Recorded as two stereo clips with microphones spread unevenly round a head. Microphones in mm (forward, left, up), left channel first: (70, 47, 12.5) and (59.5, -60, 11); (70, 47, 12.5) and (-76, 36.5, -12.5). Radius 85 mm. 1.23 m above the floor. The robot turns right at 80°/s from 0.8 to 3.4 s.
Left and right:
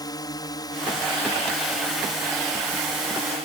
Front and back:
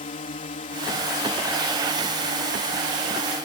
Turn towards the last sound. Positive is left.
turn(degrees=-115)